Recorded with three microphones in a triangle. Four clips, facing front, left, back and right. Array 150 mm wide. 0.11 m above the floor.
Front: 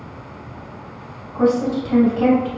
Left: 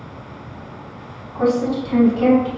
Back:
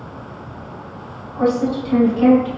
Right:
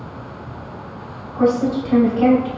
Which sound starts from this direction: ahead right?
A woman speaking, at 1.3 s.